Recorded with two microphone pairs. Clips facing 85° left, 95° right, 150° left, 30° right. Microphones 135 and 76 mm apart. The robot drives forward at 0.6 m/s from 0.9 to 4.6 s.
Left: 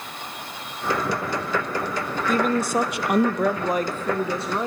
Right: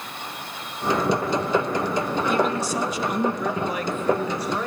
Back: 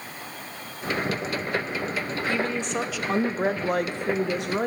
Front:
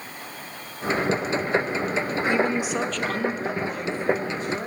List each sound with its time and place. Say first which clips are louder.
2.3 s a woman speaking: left 4 dB, front 4 dB; 40° left, 0.7 m; by 4.7 s 150° left, 1.0 m